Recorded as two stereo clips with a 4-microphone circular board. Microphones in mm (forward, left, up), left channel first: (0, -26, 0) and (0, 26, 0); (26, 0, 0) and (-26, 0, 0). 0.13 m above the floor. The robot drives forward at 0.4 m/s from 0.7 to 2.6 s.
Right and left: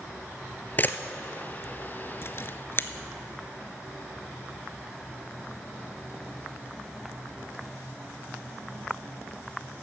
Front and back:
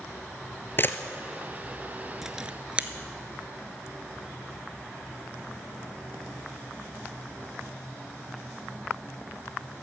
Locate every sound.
0.8 s a camera shutter: 40° right, 0.7 m; by 2.9 s 120° right, 0.6 m